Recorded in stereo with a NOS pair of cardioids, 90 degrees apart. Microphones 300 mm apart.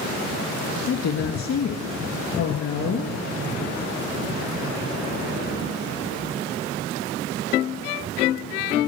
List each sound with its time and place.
0.9 s a woman speaking: 65° left, 1.9 m